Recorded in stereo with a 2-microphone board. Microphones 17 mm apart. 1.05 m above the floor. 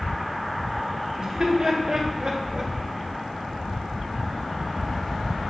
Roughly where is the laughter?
Right.